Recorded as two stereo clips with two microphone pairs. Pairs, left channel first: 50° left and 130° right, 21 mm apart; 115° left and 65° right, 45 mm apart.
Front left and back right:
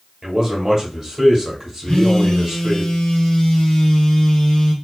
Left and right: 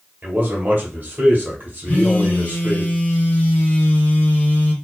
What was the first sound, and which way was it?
A man speaking, 70° right.